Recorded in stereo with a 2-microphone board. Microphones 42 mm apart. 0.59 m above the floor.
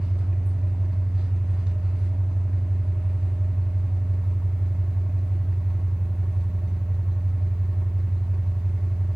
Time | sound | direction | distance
0.0 | an engine running | 20° right (ahead or behind) | 3.5 m